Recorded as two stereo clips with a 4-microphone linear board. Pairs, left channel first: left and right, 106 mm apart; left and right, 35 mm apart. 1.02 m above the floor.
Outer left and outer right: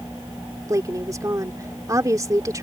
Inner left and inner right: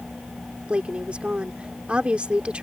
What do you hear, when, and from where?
0.7 s a woman speaking: 30° right (ahead or behind)